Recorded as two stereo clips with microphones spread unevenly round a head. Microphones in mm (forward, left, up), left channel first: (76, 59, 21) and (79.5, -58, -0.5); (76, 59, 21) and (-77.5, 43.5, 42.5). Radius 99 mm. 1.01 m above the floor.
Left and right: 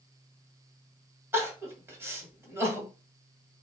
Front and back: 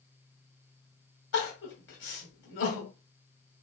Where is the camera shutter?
No camera shutter in this recording.